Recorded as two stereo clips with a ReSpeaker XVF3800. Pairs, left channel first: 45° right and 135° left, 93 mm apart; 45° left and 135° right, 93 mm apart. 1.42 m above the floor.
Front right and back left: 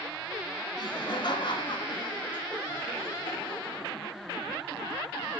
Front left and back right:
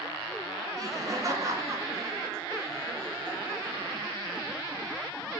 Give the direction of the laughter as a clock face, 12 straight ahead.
3 o'clock.